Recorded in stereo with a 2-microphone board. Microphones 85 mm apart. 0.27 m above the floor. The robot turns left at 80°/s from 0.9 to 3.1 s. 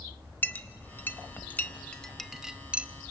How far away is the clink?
About 0.6 m.